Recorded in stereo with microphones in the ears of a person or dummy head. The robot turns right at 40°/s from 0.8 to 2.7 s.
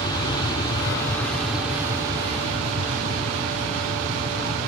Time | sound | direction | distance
0.0 | an aircraft | 150° left | ?